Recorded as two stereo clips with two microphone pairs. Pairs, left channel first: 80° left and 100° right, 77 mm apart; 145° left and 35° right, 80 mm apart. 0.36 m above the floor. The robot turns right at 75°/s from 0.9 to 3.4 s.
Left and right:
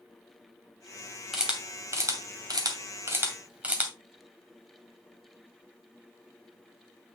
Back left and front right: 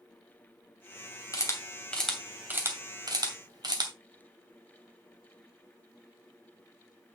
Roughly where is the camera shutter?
Behind.